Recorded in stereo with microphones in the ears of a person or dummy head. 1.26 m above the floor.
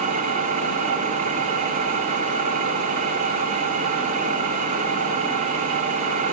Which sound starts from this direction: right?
An engine running, at 0.0 s.